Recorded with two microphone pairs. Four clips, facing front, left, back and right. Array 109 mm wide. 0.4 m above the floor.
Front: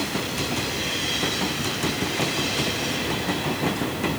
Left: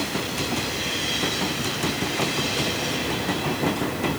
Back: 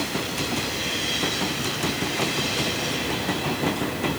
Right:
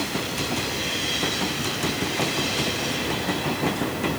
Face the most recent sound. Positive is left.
No sound to turn to.